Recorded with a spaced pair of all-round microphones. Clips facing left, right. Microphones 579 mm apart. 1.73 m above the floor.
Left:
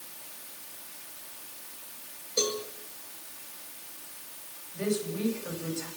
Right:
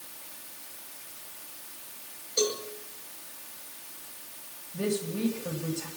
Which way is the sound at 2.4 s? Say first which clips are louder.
Right 2 dB; 50° left (ahead or behind).